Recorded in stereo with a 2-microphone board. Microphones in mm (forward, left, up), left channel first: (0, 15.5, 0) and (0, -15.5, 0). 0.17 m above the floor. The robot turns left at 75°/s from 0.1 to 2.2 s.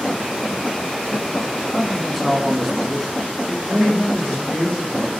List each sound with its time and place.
1.7 s a man speaking: 15° left (ahead or behind), 1.1 m; by 3.6 s centre (ahead or behind), 1.1 m
3.7 s a woman speaking: 40° left (ahead or behind), 5 m